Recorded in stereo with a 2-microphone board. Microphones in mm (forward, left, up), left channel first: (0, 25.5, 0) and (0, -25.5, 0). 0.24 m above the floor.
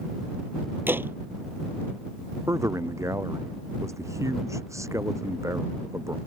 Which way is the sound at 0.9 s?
45° right (ahead or behind).